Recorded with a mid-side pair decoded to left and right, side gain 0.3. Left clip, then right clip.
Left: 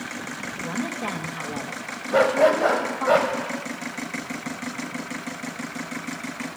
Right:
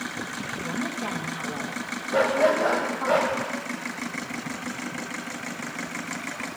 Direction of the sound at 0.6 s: 30° left.